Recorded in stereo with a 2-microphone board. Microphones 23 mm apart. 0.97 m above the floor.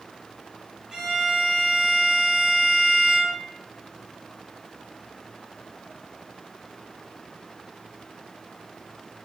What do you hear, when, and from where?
0.9 s a violin: 25° right (ahead or behind), 0.8 m